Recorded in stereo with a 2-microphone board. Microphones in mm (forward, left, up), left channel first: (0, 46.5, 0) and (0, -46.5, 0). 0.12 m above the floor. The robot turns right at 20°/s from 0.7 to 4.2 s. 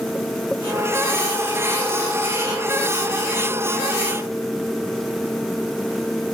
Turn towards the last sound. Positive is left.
No sound to turn to.